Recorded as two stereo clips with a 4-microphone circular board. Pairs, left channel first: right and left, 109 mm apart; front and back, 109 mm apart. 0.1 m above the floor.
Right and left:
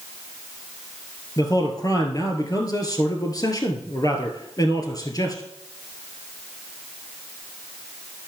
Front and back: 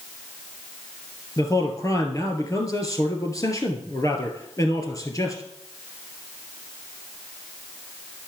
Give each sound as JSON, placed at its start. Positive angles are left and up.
{"t": 1.4, "sound": "a man speaking", "azimuth_deg": -50, "distance_m": 2.5}